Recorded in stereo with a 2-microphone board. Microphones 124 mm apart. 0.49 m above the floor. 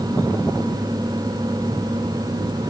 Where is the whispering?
I don't hear whispering.